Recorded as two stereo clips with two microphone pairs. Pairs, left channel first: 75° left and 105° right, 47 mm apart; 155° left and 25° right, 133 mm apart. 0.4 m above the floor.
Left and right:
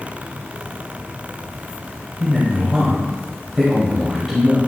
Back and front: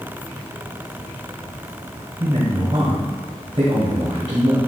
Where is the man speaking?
10° right, 1.5 m.